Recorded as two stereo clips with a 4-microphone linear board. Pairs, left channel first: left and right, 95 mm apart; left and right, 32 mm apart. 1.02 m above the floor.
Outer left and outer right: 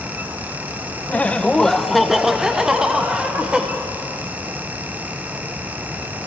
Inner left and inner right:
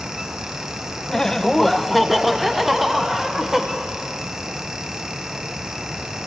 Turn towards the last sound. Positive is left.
turn(degrees=-10)  # may be behind; listen again after turning